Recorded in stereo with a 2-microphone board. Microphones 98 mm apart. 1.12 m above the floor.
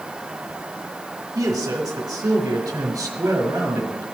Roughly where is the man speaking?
Right.